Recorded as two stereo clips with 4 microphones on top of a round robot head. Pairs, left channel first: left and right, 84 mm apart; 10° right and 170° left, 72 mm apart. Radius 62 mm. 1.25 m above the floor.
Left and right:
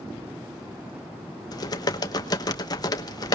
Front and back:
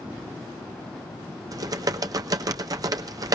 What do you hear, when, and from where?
1.5 s typing on a keyboard: 135° left, 1.1 m